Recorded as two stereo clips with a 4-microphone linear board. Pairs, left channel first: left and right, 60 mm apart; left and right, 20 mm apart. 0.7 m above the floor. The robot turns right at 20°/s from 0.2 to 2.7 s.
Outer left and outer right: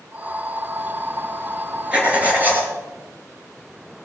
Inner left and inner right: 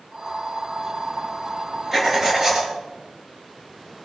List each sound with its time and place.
1.9 s writing: 20° right (ahead or behind), 3 m; by 2.7 s 35° right (ahead or behind), 3 m